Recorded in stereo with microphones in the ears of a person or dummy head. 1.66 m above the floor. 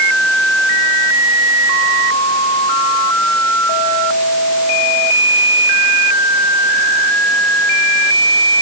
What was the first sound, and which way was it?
Only background noise.